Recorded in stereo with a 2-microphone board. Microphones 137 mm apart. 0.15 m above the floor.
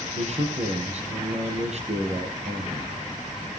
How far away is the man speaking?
About 4 m.